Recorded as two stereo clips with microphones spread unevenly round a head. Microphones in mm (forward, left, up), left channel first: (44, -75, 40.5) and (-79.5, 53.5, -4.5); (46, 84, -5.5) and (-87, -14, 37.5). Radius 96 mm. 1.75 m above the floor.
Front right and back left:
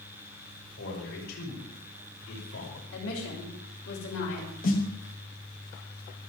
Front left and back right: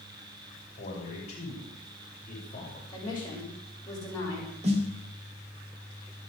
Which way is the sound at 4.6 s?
85° right.